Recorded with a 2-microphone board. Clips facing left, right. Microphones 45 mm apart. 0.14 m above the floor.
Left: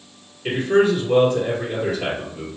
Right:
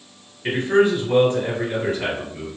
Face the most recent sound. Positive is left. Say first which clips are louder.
# even
turn(degrees=-40)  # may be behind; listen again after turning